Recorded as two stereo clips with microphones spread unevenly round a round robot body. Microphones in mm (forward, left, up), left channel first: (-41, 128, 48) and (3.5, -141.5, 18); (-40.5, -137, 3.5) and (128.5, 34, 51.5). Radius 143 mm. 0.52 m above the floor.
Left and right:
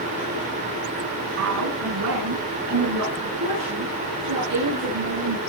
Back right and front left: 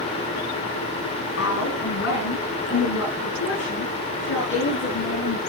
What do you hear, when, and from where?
1.4 s a woman speaking: 100° right, 4.5 m